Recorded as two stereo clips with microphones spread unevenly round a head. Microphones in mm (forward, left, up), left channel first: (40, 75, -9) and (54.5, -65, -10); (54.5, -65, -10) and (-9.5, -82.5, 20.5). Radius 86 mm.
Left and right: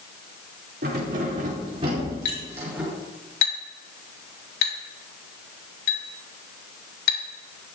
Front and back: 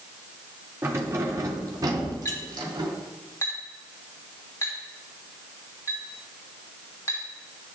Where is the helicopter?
I don't hear a helicopter.